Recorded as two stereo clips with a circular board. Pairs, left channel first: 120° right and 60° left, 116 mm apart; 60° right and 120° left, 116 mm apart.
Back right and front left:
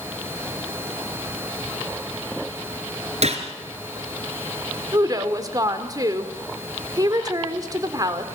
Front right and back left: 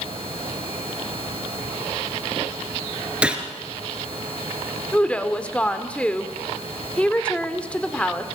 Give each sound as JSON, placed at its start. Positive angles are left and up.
{"t": 3.2, "sound": "a gunshot", "azimuth_deg": 40, "distance_m": 2.0}
{"t": 4.9, "sound": "a woman speaking", "azimuth_deg": 15, "distance_m": 1.5}